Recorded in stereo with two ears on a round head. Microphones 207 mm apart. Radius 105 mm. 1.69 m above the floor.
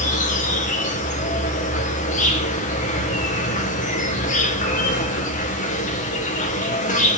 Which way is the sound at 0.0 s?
35° left (ahead or behind).